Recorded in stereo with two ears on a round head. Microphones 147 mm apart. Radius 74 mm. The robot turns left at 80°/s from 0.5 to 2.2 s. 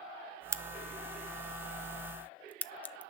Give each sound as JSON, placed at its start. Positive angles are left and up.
{"t": 0.5, "sound": "a crack", "side_deg": -20, "distance_m": 0.5}